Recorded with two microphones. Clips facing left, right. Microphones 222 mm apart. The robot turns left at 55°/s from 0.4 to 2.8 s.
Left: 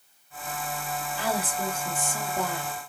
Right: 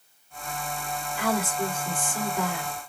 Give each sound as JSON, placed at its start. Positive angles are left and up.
{"t": 1.2, "sound": "a woman speaking", "azimuth_deg": 135, "distance_m": 1.6}